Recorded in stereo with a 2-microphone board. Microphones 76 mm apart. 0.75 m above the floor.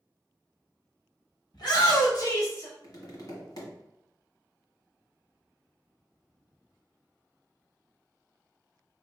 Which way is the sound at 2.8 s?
60° left (ahead or behind).